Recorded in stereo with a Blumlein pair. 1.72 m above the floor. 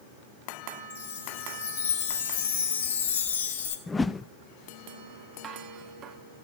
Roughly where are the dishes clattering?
Ahead right.